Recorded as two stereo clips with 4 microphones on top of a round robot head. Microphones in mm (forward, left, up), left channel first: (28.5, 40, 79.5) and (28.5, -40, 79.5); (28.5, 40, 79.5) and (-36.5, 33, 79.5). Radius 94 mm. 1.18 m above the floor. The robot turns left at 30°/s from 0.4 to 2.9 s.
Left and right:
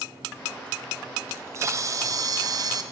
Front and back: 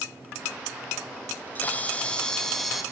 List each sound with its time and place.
1.3 s a camera shutter: 40° right, 0.6 m; by 2.8 s 85° right, 0.6 m